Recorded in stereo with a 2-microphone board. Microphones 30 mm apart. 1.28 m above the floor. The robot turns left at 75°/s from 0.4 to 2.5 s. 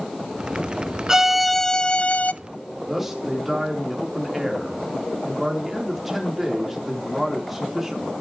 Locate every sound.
1.1 s a violin: 160° right, 0.5 m; by 2.3 s 110° left, 0.5 m
2.9 s a man speaking: 5° right (ahead or behind), 4 m